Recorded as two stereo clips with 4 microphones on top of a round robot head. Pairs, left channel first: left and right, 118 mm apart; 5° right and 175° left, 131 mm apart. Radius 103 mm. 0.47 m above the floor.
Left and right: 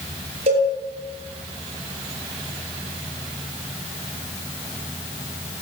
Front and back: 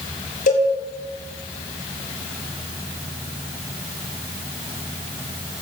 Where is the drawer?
I don't hear a drawer.